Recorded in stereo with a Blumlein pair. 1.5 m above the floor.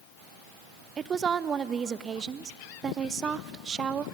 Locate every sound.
1.0 s a woman speaking: 20° right, 0.5 m